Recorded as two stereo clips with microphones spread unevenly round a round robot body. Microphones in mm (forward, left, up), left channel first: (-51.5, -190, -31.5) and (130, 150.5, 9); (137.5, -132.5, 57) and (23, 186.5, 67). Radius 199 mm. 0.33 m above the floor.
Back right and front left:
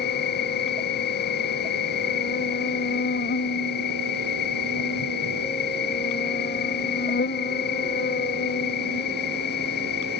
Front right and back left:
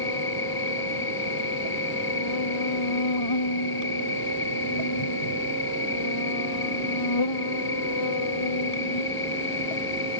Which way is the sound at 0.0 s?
55° right.